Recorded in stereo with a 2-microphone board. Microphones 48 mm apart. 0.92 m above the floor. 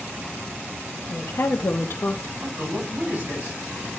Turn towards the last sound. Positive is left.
turn(degrees=-40)  # may be behind; listen again after turning